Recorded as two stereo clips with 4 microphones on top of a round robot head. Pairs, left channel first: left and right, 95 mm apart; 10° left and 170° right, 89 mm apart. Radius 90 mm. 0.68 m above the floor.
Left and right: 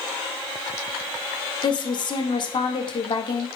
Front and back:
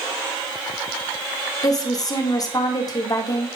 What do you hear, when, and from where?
1.6 s a woman speaking: 55° left, 1.5 m